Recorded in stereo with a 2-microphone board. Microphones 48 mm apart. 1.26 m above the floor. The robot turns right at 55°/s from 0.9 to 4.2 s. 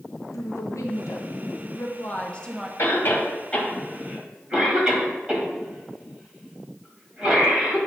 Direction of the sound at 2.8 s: 55° left (ahead or behind).